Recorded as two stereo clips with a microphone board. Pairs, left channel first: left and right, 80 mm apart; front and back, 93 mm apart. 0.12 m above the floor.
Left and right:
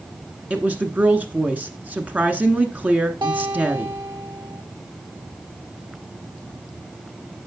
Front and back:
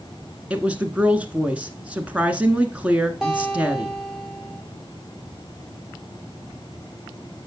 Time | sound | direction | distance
0.5 | a woman speaking | 125° right | 1.1 m
3.2 | a guitar | 95° right | 5.5 m